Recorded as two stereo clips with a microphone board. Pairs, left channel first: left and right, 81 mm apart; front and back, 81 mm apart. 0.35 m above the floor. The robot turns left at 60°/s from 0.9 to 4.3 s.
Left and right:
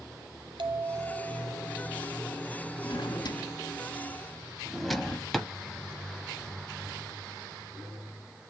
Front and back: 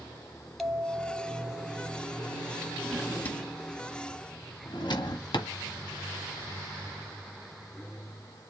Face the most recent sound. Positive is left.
turn(degrees=5)